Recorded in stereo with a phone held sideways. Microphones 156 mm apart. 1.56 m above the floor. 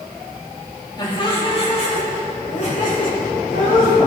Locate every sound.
1.0 s laughter: 30° left (ahead or behind), 3 m; by 4.0 s 70° left (ahead or behind), 4 m